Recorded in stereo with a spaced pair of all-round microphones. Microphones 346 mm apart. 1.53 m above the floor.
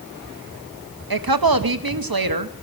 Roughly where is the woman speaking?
Right.